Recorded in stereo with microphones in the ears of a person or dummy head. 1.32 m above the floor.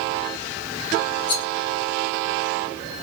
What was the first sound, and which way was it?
A rattle, 20° left (ahead or behind).